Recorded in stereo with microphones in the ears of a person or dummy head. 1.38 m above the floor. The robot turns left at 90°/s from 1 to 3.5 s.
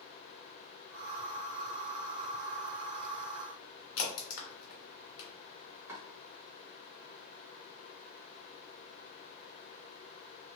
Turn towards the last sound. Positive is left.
turn(degrees=-15)  # may be behind; listen again after turning